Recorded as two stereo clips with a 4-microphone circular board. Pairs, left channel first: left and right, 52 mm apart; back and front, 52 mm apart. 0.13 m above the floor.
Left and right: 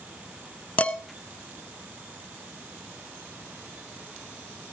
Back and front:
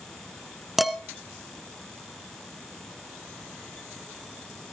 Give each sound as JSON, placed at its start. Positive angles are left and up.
{"t": 0.8, "sound": "dishes clattering", "azimuth_deg": 85, "distance_m": 0.8}